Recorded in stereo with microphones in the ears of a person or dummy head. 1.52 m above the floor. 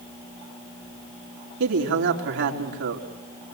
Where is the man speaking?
65° right (ahead or behind), 3.5 m.